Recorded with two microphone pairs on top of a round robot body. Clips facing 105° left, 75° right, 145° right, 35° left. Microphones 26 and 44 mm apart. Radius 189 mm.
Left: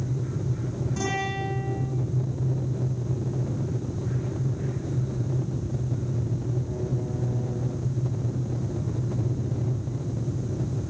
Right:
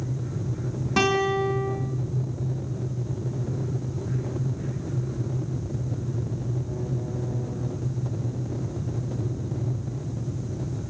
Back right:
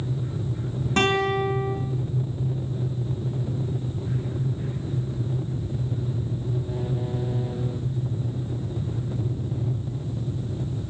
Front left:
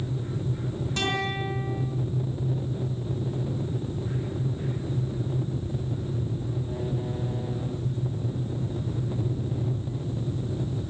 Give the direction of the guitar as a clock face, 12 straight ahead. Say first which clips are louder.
Right 8 dB, back right 8 dB; 3 o'clock.